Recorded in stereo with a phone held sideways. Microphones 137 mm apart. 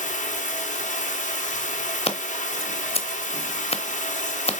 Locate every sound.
0.0 s running water: 65° left (ahead or behind), 1.1 m
2.0 s scissors: 45° left (ahead or behind), 0.7 m